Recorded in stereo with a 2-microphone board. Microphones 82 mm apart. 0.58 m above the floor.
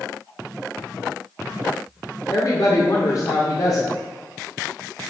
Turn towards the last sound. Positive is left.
turn(degrees=50)  # may be behind; listen again after turning